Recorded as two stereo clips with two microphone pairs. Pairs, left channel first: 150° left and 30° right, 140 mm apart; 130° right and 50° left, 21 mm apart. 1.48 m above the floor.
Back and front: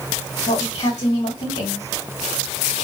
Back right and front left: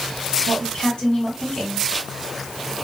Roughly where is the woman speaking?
Behind.